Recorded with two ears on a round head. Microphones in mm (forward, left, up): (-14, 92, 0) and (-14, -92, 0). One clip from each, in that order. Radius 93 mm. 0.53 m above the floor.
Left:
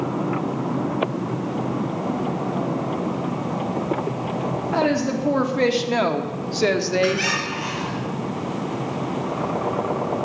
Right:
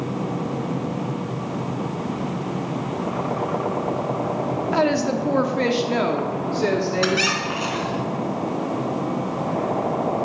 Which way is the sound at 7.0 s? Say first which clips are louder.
Right 1 dB; 65° right (ahead or behind).